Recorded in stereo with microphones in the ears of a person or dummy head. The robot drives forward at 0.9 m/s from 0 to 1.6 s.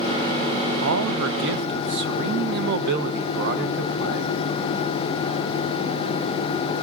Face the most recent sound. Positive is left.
turn(degrees=-60)  # may be behind; listen again after turning